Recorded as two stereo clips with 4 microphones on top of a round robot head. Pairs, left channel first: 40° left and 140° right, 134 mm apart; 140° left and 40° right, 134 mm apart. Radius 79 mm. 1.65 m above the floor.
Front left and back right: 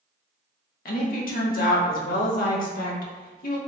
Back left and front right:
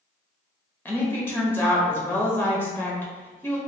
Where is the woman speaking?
65° left, 0.9 m.